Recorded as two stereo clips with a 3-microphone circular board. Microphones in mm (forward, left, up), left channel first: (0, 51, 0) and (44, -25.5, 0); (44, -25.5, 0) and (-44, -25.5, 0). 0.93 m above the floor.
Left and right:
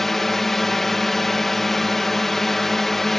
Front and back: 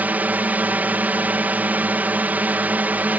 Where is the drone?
160° right.